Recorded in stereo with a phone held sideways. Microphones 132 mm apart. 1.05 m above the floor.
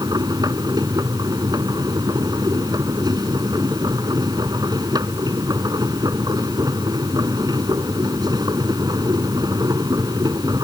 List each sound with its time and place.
0.0 s a machine running: 30° right (ahead or behind)